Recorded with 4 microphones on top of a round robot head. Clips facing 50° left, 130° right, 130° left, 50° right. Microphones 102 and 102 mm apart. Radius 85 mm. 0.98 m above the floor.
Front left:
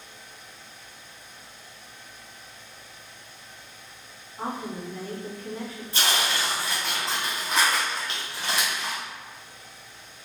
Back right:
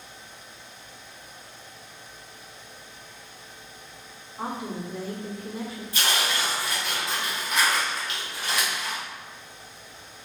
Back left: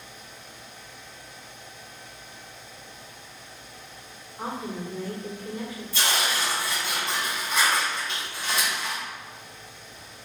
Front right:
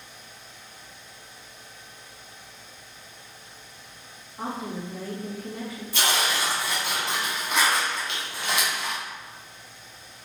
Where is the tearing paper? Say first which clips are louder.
Front left 1 dB, front right 1 dB; 15° right, 1.2 m.